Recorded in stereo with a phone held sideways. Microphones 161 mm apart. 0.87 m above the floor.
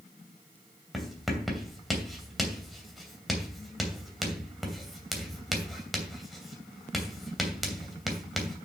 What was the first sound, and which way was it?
Writing, centre (ahead or behind).